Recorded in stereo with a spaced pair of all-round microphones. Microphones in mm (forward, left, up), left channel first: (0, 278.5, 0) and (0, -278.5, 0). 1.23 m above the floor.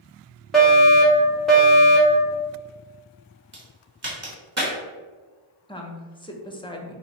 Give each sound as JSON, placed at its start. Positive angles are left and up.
{"t": 0.5, "sound": "a fire alarm", "side_deg": 0, "distance_m": 1.4}
{"t": 3.5, "sound": "a crack", "side_deg": -50, "distance_m": 1.7}
{"t": 5.7, "sound": "a woman speaking", "side_deg": 10, "distance_m": 0.6}